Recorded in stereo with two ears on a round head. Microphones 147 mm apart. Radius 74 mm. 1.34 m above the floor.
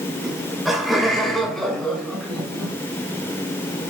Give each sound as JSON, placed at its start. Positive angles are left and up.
{"t": 0.2, "sound": "laughter", "side_deg": -5, "distance_m": 5.5}